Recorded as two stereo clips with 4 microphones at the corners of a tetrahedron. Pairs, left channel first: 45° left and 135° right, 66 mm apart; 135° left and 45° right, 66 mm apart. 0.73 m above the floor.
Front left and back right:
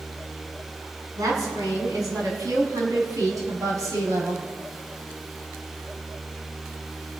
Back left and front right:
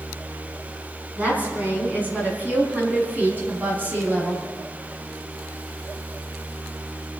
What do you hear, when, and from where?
1.2 s a woman speaking: 110° right, 6 m; by 4.4 s 105° right, 4 m